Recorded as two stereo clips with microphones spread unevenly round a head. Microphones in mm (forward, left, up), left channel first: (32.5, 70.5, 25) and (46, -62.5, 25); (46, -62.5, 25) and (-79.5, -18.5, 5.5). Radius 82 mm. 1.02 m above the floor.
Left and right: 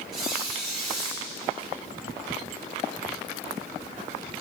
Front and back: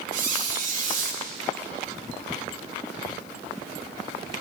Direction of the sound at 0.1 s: 175° right.